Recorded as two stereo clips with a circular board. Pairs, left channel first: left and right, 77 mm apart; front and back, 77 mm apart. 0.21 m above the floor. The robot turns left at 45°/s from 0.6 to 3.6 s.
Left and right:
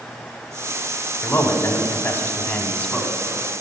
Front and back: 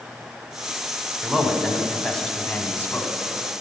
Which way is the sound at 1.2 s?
115° left.